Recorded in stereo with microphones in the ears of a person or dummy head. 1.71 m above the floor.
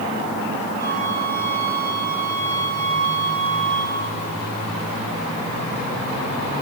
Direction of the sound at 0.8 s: 15° left (ahead or behind).